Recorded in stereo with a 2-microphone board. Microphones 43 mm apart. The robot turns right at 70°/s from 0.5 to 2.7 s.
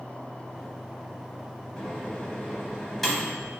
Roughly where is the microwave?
Left.